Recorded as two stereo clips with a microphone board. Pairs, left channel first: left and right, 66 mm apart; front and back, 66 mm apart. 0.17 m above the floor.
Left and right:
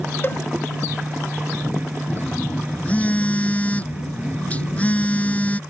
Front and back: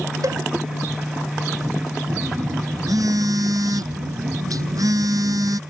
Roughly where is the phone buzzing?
Behind.